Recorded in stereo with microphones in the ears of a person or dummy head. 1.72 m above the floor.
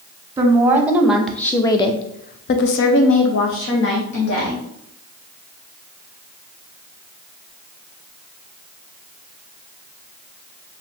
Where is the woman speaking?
20° right (ahead or behind), 1.0 m; by 4.6 s 60° left (ahead or behind), 1.5 m.